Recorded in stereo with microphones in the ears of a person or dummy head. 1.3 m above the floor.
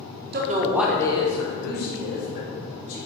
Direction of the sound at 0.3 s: 50° right (ahead or behind).